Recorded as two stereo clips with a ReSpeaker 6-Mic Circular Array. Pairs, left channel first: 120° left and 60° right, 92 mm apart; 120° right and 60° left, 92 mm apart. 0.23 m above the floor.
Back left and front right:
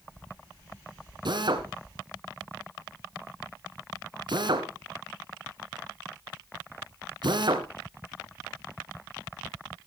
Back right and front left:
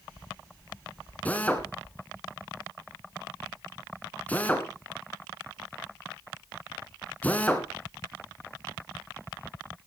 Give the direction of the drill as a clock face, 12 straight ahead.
2 o'clock.